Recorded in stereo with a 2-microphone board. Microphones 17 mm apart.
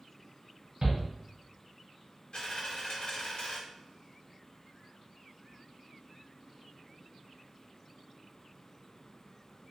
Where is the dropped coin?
55° left (ahead or behind), 0.9 m.